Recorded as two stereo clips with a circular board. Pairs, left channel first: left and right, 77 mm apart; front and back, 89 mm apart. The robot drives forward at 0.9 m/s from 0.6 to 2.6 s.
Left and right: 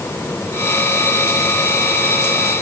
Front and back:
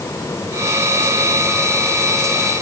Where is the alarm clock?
No alarm clock in this recording.